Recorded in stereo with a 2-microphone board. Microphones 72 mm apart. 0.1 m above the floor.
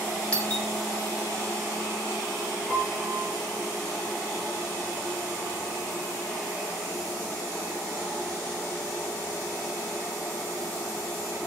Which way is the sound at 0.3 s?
15° left (ahead or behind).